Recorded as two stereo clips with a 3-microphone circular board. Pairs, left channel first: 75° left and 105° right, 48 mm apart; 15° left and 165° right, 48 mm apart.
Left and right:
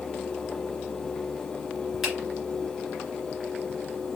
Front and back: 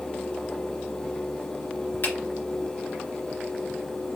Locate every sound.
2.0 s a finger snap: 20° right, 2.5 m